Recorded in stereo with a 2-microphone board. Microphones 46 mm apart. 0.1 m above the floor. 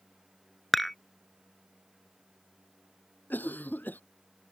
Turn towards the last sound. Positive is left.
turn(degrees=40)  # may be behind; listen again after turning